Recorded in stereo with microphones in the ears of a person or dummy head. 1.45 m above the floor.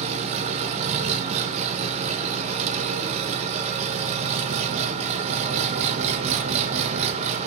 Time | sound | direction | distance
0.0 | an engine running | 40° right (ahead or behind) | 0.8 m